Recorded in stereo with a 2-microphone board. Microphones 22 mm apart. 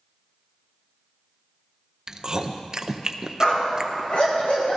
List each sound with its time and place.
2.1 s chewing: 30° right (ahead or behind), 0.6 m
3.4 s a dog barking: 65° left (ahead or behind), 3 m